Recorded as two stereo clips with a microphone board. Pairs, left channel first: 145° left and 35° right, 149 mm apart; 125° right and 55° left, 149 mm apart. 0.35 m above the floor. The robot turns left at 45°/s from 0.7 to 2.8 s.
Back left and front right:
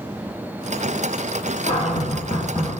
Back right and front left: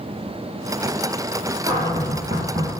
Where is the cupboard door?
120° left, 2 m; by 2.7 s 75° left, 2 m.